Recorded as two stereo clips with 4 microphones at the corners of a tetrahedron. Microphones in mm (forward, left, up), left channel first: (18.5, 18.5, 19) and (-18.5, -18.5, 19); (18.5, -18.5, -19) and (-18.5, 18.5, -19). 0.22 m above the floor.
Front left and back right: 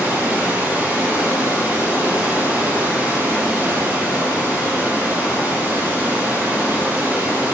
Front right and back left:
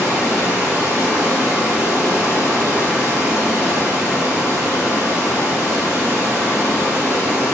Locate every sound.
0.0 s running water: 175° left, 3 m